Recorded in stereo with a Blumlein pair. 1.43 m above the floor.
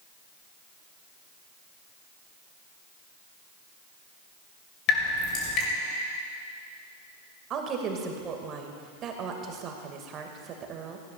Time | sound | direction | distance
4.9 | dripping | 35° left | 3 m
7.5 | a woman speaking | 30° right | 2.0 m